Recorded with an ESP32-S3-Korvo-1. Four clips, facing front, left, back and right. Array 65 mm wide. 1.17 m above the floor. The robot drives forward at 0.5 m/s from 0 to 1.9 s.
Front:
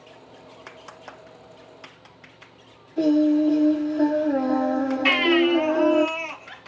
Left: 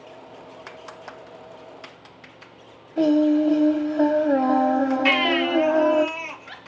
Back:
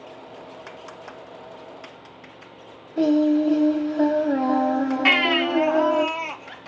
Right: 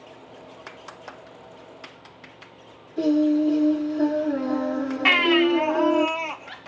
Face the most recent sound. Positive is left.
turn(degrees=-135)